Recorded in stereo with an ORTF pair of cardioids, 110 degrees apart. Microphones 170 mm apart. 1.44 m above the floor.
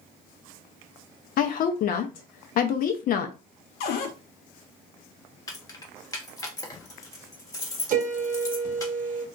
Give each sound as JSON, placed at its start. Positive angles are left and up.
{"t": 1.4, "sound": "a woman speaking", "azimuth_deg": 60, "distance_m": 0.5}
{"t": 3.8, "sound": "a cupboard door", "azimuth_deg": 65, "distance_m": 0.6}
{"t": 5.5, "sound": "keys jangling", "azimuth_deg": 20, "distance_m": 0.9}
{"t": 7.9, "sound": "a piano", "azimuth_deg": -55, "distance_m": 0.8}